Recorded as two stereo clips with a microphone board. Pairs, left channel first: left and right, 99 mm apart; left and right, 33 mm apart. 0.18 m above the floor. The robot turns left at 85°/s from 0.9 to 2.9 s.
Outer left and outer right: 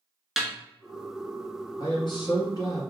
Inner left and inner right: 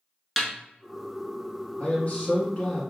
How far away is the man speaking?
About 1.4 m.